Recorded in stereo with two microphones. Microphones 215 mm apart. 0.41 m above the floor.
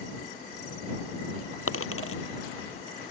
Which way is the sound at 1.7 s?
85° left.